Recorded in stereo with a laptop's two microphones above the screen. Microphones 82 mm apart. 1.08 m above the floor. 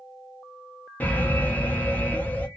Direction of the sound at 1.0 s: 20° left (ahead or behind).